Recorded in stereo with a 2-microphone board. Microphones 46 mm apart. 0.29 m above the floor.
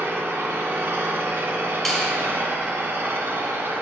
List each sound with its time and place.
0.0 s an engine running: 70° right (ahead or behind), 0.8 m
1.9 s a finger snap: centre (ahead or behind), 1.6 m